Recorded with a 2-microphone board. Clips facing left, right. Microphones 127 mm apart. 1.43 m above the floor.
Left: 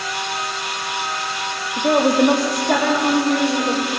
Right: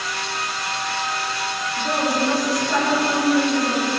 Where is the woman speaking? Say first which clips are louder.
Left 8 dB; 60° left (ahead or behind), 2.5 m; by 3.8 s 80° left, 5.5 m.